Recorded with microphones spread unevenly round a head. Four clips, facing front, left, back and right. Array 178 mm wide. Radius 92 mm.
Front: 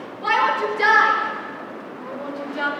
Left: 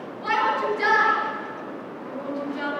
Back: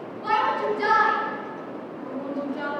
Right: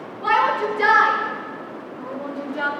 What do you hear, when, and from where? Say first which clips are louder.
0.2 s a shout: right 4 dB, front 3 dB; 35° right, 9.5 m